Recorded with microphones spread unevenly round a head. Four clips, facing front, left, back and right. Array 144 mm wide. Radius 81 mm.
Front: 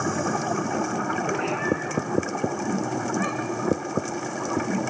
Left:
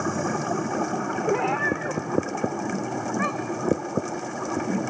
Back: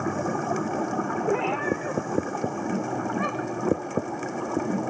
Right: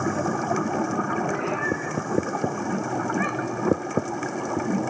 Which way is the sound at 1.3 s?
135° left.